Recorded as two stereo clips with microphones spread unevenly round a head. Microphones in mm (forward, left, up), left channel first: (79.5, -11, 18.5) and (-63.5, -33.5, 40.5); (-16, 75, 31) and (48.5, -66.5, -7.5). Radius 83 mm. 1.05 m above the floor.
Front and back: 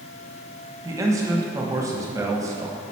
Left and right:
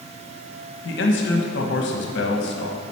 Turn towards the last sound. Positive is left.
turn(degrees=115)